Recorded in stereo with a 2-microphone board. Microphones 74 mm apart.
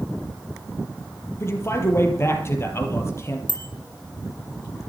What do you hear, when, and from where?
1.4 s a man speaking: 35° left (ahead or behind), 4 m
3.5 s a bicycle bell: 75° right (ahead or behind), 3.5 m